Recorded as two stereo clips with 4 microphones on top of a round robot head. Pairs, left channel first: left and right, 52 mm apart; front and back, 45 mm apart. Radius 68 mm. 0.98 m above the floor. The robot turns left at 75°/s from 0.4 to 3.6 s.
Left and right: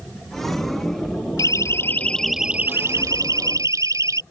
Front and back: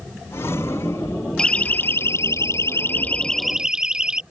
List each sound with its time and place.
1.4 s a siren: 75° left; by 4.2 s 105° right